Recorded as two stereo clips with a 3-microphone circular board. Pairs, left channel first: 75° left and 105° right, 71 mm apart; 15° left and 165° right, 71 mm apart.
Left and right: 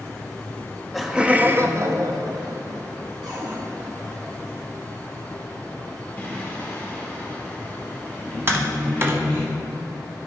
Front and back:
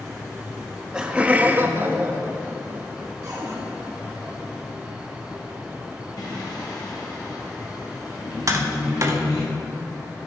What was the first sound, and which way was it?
Laughter, 105° left.